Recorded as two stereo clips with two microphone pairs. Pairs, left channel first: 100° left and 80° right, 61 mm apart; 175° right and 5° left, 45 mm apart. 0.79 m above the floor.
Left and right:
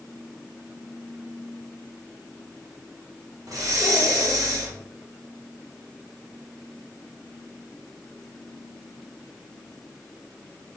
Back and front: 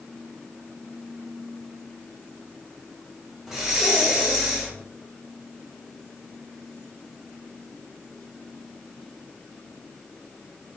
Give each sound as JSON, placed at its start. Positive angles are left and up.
{"t": 3.5, "sound": "breathing", "azimuth_deg": -75, "distance_m": 0.9}